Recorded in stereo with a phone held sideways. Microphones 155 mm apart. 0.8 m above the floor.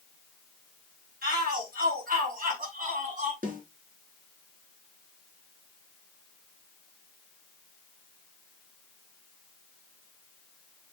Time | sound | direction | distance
1.2 | a shout | 75° right (ahead or behind) | 5.5 m
3.4 | a snare drum | 60° right (ahead or behind) | 3.5 m